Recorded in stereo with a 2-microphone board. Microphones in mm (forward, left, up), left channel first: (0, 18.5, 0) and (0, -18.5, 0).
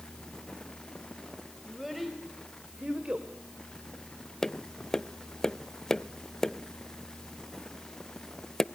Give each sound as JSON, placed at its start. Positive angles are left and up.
{"t": 1.6, "sound": "a child speaking", "side_deg": 0, "distance_m": 3.0}
{"t": 4.4, "sound": "tapping", "side_deg": 10, "distance_m": 0.5}